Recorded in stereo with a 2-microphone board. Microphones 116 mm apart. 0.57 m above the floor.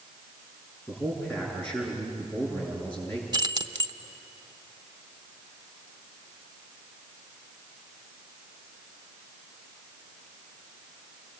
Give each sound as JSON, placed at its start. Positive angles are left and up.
{"t": 0.9, "sound": "a man speaking", "side_deg": 15, "distance_m": 7.0}
{"t": 3.3, "sound": "keys jangling", "side_deg": -40, "distance_m": 0.9}